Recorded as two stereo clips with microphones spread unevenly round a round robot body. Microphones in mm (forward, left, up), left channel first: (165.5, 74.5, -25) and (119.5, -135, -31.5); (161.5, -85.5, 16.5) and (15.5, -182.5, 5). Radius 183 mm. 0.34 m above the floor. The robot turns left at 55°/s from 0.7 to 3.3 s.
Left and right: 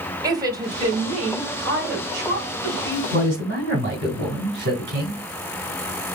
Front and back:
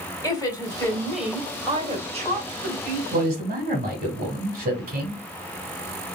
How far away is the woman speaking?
About 1.9 m.